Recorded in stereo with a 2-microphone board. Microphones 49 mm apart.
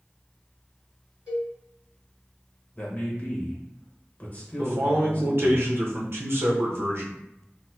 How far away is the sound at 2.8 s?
About 1.1 m.